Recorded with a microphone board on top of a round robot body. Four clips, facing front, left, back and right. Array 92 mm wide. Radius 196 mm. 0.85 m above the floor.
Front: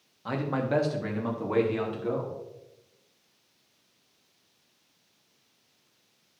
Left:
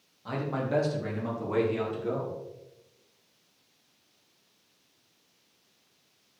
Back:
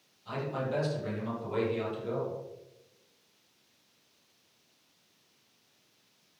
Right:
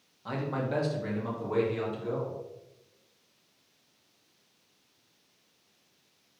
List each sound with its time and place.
0.2 s a man speaking: 5° right, 2 m; by 2.4 s 25° left, 2.5 m